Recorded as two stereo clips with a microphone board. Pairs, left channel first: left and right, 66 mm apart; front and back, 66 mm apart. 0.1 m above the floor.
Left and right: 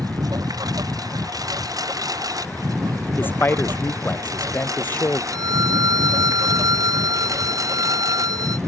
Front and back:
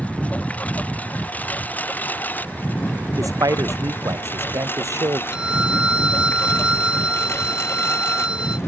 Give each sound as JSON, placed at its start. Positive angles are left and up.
{"t": 0.0, "sound": "a lawn mower", "azimuth_deg": -70}
{"t": 3.2, "sound": "a man speaking", "azimuth_deg": 150}
{"t": 5.3, "sound": "a violin", "azimuth_deg": -105}